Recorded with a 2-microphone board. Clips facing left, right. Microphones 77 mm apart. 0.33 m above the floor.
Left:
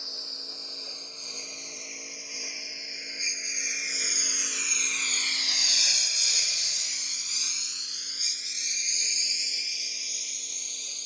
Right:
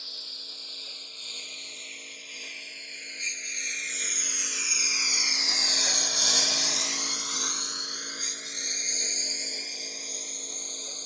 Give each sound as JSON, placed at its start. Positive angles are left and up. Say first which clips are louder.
{"t": 0.0, "sound": "a lawn mower", "louder": "left 4 dB", "side_deg": 20}